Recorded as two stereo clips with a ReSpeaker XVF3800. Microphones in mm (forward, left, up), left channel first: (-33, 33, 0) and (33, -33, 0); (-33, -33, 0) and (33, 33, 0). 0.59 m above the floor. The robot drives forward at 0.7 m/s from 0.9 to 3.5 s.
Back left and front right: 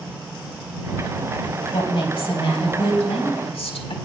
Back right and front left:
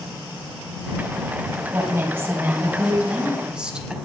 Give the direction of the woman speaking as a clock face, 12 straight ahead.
9 o'clock.